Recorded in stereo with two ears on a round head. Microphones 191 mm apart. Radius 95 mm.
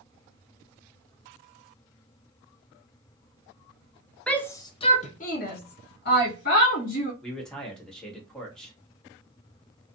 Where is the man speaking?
5° left (ahead or behind), 1.1 m.